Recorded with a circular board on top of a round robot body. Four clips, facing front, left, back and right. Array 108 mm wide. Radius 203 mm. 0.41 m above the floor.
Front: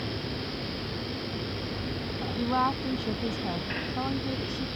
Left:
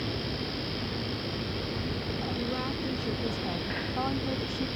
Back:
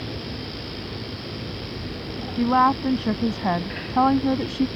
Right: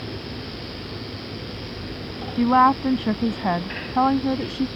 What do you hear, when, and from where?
2.4 s a woman speaking: 115° right; by 4.7 s 150° right